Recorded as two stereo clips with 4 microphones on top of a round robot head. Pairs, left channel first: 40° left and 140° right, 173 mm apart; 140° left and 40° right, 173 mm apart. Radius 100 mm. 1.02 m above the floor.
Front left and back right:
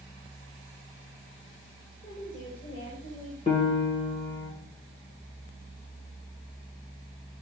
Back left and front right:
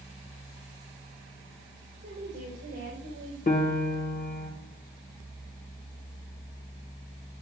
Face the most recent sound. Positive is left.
turn(degrees=95)